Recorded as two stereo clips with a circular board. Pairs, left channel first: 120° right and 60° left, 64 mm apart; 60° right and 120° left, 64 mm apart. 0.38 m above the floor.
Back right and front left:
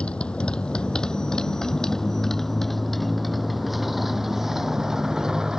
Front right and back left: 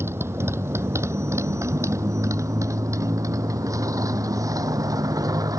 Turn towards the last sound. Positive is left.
turn(degrees=140)